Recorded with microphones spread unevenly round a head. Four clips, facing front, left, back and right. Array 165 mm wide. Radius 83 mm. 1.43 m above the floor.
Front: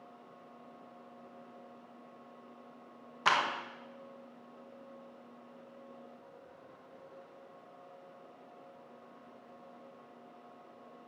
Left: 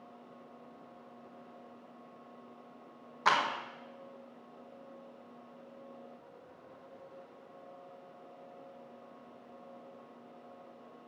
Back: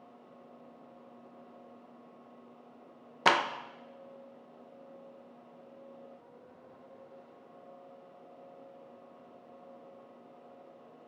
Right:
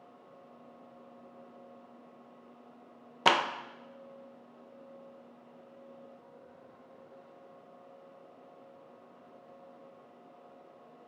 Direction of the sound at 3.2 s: 135° right.